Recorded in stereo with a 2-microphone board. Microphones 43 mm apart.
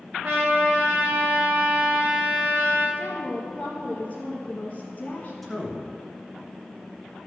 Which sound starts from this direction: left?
A woman speaking, at 3.0 s.